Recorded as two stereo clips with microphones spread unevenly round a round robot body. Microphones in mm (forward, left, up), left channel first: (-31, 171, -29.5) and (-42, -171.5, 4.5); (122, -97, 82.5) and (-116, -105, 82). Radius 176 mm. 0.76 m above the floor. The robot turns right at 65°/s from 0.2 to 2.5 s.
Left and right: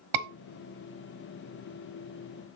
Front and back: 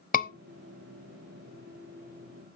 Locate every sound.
0.1 s a scream: 55° right, 0.9 m; by 0.3 s 50° right, 0.9 m